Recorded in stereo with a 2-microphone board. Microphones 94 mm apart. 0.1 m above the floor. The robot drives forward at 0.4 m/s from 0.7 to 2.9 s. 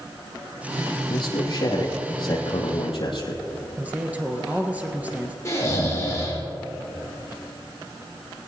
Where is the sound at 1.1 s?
50° left (ahead or behind), 3.5 m; by 3.4 s 60° left (ahead or behind), 3 m.